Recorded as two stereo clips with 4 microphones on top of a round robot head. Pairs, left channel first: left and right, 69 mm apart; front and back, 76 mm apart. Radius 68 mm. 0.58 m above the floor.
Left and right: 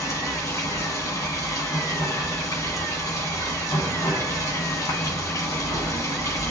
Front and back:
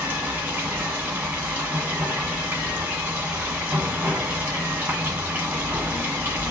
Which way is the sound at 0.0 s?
120° left.